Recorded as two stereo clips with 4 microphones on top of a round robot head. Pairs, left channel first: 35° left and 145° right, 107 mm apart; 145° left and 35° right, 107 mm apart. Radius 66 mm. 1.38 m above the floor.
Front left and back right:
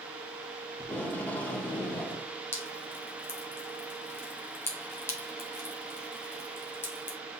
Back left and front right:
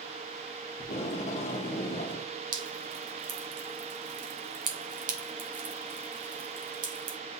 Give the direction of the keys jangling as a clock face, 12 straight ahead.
No keys jangling in this recording.